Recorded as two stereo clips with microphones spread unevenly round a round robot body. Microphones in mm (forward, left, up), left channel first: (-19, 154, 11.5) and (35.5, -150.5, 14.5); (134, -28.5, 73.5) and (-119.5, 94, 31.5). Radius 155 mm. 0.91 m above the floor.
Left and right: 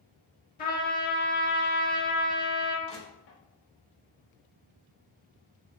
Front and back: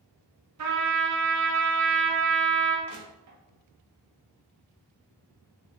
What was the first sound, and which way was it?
A trumpet, 165° left.